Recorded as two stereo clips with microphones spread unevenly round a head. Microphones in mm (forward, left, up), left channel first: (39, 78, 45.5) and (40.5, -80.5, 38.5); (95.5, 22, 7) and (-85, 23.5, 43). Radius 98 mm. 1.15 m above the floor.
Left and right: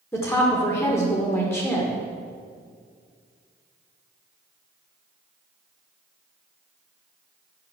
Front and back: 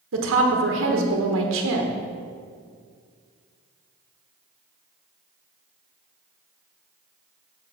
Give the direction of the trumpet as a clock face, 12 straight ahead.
No trumpet in this recording.